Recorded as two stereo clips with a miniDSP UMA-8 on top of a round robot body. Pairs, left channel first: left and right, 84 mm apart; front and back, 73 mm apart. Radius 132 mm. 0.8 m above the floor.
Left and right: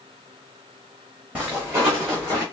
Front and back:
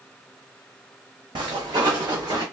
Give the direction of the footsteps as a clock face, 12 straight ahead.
5 o'clock.